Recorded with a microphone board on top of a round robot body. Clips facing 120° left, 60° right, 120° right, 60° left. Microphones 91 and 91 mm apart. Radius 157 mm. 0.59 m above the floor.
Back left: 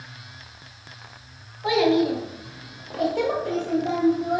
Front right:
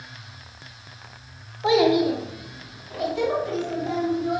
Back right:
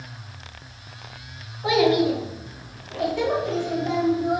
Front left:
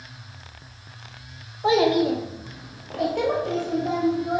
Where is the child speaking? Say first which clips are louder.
Front right 1 dB, even; straight ahead, 0.8 m; by 4.4 s 115° left, 1.3 m.